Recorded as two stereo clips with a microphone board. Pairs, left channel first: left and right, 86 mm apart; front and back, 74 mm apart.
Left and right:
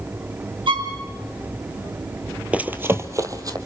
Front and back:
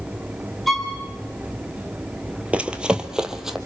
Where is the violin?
90° right, 3.5 m.